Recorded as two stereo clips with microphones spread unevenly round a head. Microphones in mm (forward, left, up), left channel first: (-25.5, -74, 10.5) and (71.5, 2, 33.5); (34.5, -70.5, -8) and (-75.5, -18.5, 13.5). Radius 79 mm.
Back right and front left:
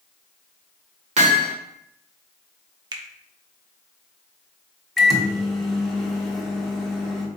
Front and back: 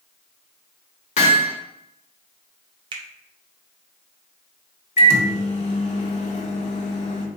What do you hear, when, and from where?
1.2 s hammering: 10° left, 1.1 m
2.9 s a finger snap: 95° left, 0.5 m
5.0 s a microwave: 55° right, 1.1 m